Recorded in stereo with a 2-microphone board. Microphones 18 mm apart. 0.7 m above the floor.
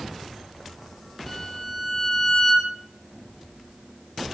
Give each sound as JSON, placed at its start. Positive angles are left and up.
{"t": 1.3, "sound": "a violin", "side_deg": 20, "distance_m": 0.7}